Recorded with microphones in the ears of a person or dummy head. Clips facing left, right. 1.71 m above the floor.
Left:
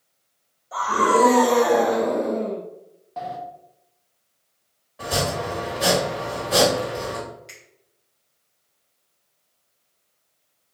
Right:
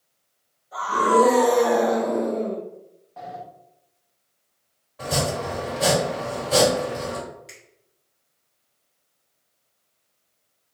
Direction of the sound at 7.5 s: Centre (ahead or behind).